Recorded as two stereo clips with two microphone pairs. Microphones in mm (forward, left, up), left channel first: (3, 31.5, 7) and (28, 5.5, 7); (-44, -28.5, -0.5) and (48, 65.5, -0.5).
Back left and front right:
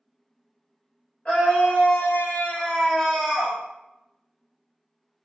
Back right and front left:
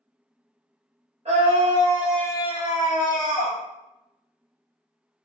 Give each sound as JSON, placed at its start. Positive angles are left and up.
{"t": 1.2, "sound": "a scream", "azimuth_deg": 85, "distance_m": 1.3}